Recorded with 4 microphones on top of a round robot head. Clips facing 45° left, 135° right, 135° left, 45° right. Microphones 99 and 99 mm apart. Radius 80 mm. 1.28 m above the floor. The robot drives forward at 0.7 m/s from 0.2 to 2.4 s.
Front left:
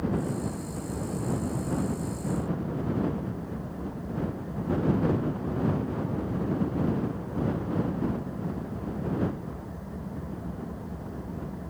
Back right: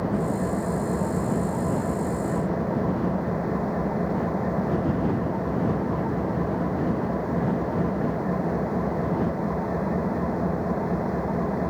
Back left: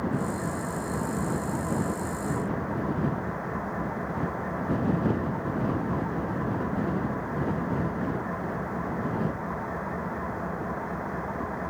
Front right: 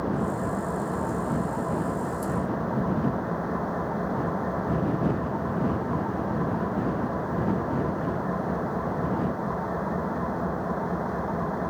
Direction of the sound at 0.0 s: 115° right.